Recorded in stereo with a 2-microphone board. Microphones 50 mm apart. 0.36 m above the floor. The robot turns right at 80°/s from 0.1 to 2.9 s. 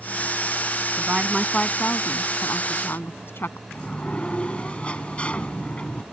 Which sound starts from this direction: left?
A sliding door, at 3.7 s.